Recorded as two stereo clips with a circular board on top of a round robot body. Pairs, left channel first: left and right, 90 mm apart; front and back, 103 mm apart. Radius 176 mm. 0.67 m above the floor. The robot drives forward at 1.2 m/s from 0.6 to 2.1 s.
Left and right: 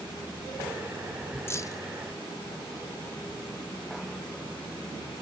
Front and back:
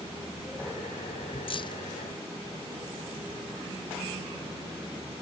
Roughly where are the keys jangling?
Ahead left.